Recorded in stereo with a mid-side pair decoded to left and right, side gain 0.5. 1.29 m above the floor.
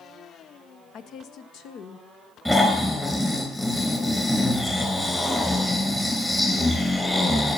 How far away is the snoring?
About 3.5 m.